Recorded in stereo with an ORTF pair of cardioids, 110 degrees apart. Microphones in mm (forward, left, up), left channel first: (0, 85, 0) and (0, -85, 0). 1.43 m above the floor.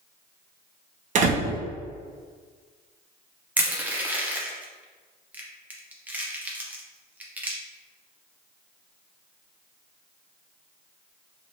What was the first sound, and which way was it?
A door slam, 50° right.